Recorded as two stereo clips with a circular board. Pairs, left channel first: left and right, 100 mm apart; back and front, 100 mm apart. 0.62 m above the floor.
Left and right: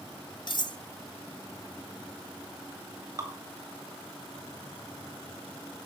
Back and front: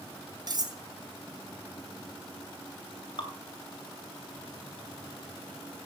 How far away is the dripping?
About 3 m.